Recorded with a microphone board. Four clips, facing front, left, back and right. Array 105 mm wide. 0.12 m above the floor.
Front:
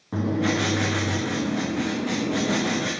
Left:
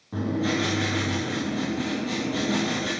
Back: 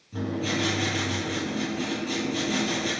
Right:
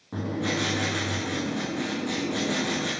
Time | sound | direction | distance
0.1 | writing | 15° right | 6.5 m